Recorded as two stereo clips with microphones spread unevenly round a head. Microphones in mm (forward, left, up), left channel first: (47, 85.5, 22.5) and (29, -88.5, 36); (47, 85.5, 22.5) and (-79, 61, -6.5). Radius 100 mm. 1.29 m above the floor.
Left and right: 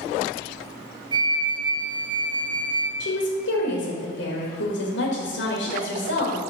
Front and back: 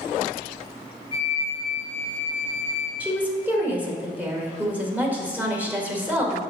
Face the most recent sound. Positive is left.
turn(degrees=115)